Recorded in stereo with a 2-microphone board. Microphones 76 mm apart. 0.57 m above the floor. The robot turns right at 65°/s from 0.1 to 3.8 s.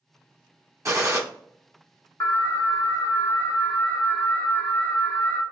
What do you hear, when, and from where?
0.8 s a gunshot: 40° right (ahead or behind), 1.0 m
2.2 s an alarm: 40° left, 1.1 m; by 5.4 s 145° left, 1.1 m